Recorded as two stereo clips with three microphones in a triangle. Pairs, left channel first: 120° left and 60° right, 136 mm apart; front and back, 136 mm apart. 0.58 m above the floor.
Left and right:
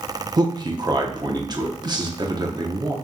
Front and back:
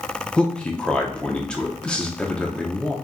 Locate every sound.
0.4 s a man speaking: 75° right, 0.7 m